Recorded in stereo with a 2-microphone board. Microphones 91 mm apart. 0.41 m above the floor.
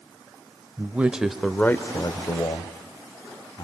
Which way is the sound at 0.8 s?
20° right (ahead or behind).